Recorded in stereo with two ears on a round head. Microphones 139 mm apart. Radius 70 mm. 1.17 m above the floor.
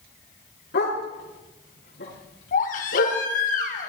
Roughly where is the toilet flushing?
No toilet flushing in this recording.